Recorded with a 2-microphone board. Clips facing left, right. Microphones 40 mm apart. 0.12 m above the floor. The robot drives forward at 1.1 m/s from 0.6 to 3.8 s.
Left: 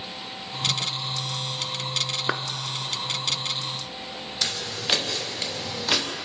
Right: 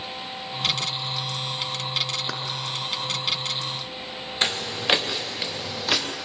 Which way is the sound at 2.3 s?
30° left (ahead or behind).